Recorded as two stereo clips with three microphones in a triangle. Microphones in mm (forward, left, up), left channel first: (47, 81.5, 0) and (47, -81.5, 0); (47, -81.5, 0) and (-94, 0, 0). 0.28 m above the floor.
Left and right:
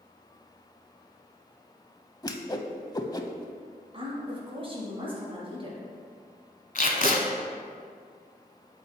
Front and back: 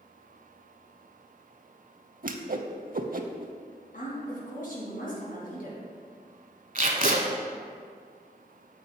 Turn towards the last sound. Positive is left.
turn(degrees=115)